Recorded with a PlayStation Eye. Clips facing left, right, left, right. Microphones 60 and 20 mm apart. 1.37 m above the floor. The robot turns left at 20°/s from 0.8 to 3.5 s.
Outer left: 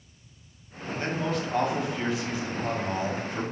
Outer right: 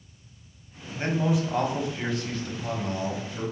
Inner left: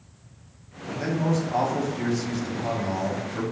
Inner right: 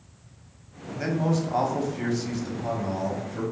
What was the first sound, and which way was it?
A man speaking, 160° right.